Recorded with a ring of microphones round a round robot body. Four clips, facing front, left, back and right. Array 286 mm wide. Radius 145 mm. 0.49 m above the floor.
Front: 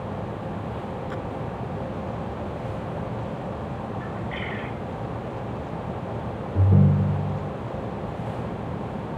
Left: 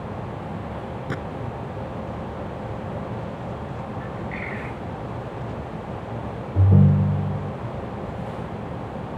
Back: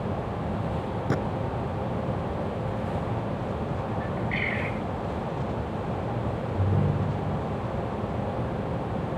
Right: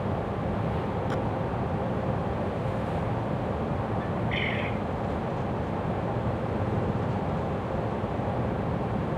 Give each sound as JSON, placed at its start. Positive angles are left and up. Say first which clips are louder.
{"t": 1.1, "sound": "a gunshot", "louder": "even, back 5 dB", "azimuth_deg": 160}
{"t": 4.0, "sound": "a bird", "louder": "right 2 dB, back 2 dB", "azimuth_deg": -125}
{"t": 6.5, "sound": "a ringtone", "louder": "left 8 dB, front 9 dB", "azimuth_deg": 65}